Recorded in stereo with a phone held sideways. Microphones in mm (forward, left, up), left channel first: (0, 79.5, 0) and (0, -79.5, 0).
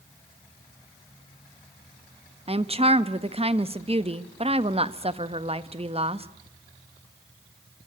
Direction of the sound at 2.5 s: 40° right (ahead or behind).